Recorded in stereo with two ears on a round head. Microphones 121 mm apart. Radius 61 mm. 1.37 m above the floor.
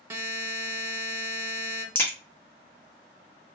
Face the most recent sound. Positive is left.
turn(degrees=15)  # may be behind; listen again after turning